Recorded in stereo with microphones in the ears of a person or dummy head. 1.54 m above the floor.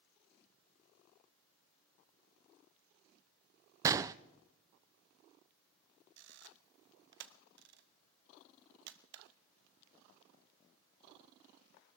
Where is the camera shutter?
60° right (ahead or behind), 0.8 m.